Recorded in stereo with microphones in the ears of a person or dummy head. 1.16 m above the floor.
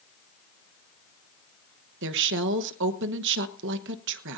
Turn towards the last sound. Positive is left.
turn(degrees=-60)  # may be behind; listen again after turning